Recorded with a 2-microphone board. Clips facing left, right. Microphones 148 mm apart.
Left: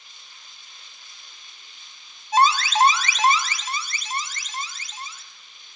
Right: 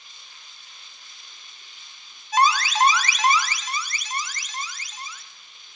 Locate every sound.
2.3 s an alarm: 25° left (ahead or behind), 1.8 m